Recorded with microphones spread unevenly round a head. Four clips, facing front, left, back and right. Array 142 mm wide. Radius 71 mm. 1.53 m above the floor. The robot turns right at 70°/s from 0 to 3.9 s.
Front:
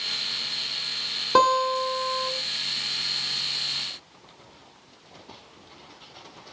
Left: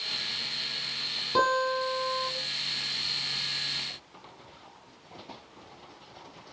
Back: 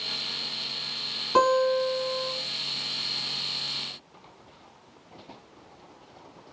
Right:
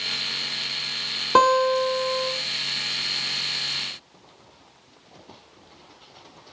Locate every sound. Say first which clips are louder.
1.4 s a guitar: right 8 dB, front 1 dB; 65° right, 3 m; by 2.3 s 5° left, 3 m